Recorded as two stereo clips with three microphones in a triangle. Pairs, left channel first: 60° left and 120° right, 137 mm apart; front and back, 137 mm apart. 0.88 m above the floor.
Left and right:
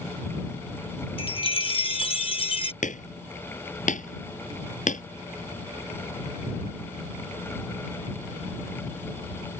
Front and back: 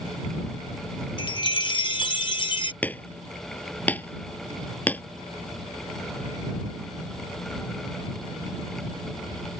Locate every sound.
1.2 s a chime: 40° left
2.8 s hammering: 80° left